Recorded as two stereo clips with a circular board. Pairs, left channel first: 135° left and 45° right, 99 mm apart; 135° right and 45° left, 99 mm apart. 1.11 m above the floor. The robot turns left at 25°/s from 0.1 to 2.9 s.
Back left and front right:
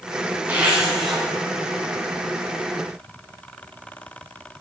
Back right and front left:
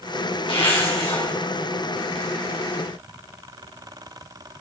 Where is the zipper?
115° right, 3.5 m; by 1.2 s 135° right, 3.5 m.